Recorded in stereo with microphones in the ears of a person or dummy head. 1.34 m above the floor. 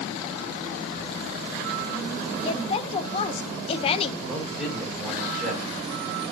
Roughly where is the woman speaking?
Left.